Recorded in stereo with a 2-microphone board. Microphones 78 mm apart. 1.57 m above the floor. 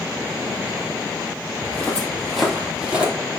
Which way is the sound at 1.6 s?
20° left (ahead or behind).